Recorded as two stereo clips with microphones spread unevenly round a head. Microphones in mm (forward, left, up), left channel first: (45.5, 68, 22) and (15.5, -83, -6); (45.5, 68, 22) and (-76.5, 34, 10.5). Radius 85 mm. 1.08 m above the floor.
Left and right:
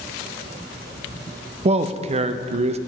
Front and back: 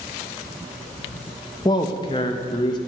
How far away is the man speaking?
About 0.6 m.